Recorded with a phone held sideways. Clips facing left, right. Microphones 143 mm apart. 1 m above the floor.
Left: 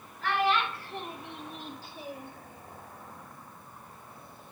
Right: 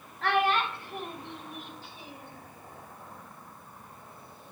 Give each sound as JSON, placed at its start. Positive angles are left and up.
{"t": 0.2, "sound": "a child speaking", "side_deg": -60, "distance_m": 1.2}